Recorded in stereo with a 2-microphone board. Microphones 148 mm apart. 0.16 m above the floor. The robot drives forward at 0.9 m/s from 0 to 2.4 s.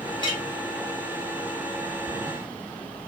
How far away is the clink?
About 1.5 m.